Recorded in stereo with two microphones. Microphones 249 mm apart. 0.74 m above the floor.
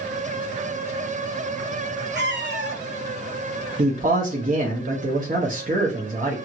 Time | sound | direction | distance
2.1 | a cat meowing | 45° right (ahead or behind) | 0.5 m
3.8 | a man speaking | 35° right (ahead or behind) | 0.6 m